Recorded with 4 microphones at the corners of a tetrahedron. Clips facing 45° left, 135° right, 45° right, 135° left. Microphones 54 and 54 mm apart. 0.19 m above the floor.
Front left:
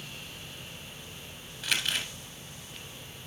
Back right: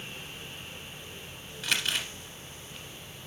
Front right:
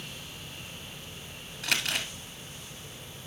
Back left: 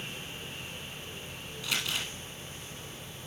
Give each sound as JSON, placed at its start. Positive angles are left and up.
{"t": 1.6, "sound": "crumpling", "azimuth_deg": -45, "distance_m": 1.7}